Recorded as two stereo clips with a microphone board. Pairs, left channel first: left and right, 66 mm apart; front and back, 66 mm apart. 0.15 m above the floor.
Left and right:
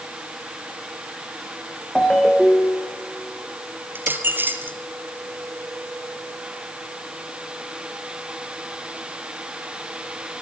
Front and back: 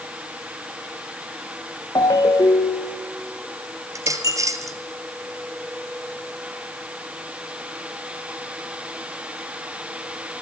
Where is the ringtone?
5° left, 4 m.